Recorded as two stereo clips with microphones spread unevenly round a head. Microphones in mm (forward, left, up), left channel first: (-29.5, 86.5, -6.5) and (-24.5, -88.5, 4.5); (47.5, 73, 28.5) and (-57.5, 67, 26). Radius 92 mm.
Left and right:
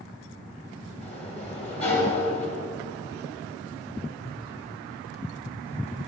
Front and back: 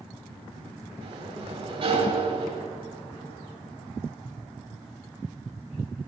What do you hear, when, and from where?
1.0 s a sliding door: 145° left, 3.5 m